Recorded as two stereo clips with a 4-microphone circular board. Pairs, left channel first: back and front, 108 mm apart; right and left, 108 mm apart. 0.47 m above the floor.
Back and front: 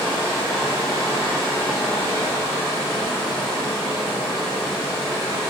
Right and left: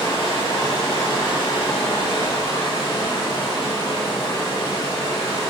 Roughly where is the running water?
Behind right.